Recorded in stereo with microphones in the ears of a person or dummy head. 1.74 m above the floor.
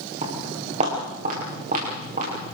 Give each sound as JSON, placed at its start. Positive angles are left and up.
{"t": 0.2, "sound": "footsteps", "side_deg": -40, "distance_m": 9.0}